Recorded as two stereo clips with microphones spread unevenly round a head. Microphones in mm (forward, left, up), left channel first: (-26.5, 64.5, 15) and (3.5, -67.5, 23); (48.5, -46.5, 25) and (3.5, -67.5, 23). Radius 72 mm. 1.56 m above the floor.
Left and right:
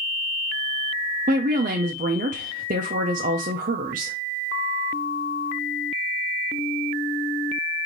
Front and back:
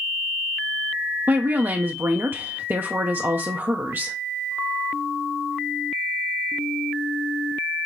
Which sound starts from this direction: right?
A woman speaking, at 1.3 s.